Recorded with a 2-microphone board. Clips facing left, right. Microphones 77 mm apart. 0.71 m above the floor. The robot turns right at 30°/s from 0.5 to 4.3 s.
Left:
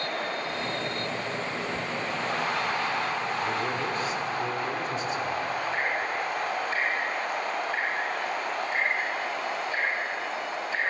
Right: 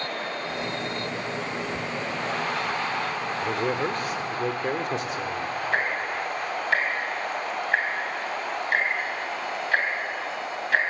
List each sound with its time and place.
3.4 s a man speaking: 50° right (ahead or behind), 1.7 m; by 5.5 s 70° right (ahead or behind), 1.7 m
5.7 s ticking: 75° right (ahead or behind), 3.5 m